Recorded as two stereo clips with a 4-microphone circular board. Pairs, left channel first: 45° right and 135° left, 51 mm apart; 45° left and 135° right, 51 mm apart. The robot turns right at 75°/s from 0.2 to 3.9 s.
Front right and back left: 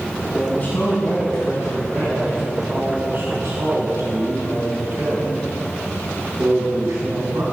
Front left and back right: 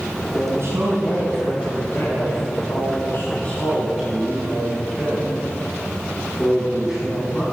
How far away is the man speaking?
About 4.5 m.